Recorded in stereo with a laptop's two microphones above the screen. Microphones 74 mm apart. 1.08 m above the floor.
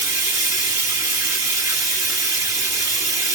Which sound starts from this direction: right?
Running water, at 0.0 s.